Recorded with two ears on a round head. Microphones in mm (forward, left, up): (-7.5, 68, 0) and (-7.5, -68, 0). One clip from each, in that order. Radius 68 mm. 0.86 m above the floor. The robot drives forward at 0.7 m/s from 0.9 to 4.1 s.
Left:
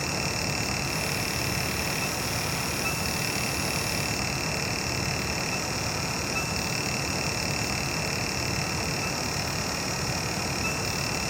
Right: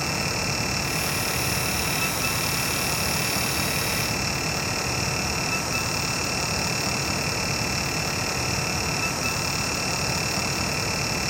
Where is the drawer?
I don't hear a drawer.